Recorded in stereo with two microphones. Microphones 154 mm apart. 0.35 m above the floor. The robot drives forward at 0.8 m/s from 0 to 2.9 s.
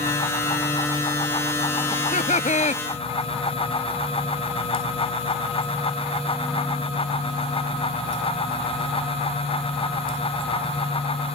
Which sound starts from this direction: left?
Laughter, at 1.9 s.